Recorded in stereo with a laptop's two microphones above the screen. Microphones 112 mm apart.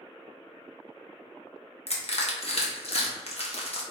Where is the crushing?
65° left (ahead or behind), 0.8 m.